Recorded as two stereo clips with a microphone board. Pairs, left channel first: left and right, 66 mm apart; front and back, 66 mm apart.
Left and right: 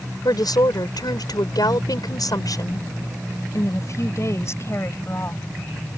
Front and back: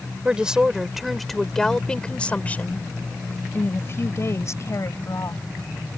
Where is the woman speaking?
105° left; by 5.4 s 35° left.